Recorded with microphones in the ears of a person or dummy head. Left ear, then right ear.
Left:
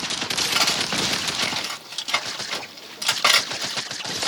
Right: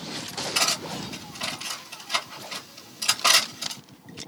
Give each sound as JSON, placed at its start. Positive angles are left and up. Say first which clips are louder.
{"t": 0.6, "sound": "cutlery clinking", "louder": "left 2 dB", "side_deg": 40, "distance_m": 1.7}